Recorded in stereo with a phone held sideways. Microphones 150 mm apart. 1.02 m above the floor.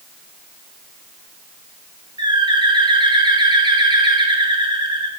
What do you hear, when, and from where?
2.2 s a bird: 35° right (ahead or behind), 0.7 m